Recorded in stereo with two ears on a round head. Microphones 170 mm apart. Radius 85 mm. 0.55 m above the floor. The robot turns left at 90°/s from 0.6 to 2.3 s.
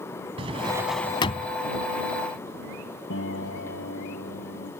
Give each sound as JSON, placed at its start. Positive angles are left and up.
{"t": 0.4, "sound": "a drawer", "azimuth_deg": -150}
{"t": 3.1, "sound": "a piano", "side_deg": 70}